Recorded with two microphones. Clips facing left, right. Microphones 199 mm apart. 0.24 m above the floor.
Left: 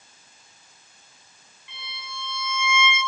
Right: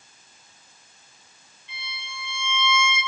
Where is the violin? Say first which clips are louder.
Left 1 dB; 65° left (ahead or behind), 7.5 m.